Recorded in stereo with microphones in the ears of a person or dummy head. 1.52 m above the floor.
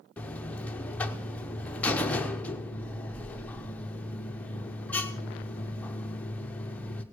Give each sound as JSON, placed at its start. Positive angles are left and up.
{"t": 0.2, "sound": "a buzzer", "side_deg": 10, "distance_m": 0.8}